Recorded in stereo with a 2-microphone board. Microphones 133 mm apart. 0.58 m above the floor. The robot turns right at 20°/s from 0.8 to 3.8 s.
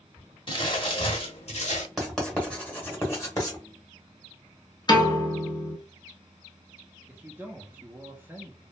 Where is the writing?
Centre (ahead or behind), 1.1 m; by 3.6 s 30° left (ahead or behind), 1.1 m.